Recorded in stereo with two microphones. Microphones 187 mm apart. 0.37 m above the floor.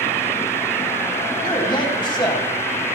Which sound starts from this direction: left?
A man speaking, at 1.4 s.